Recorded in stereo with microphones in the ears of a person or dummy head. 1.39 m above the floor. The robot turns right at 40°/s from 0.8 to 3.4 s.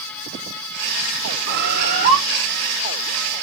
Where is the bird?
60° right (ahead or behind), 2.5 m; by 2.2 s 35° right (ahead or behind), 2.5 m.